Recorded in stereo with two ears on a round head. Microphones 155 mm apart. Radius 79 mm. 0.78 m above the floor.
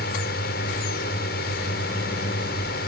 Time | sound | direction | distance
0.0 | a drone | 60° left (ahead or behind) | ?